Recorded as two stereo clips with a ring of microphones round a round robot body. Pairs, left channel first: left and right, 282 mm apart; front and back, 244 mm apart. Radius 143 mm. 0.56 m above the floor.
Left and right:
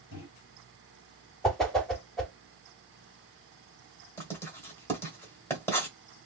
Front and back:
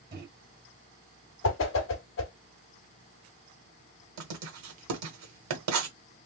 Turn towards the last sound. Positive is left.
turn(degrees=170)